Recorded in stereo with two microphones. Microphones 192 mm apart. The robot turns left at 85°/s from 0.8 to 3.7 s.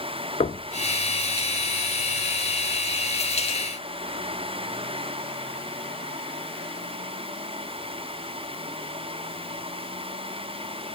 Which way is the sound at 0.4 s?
35° left (ahead or behind).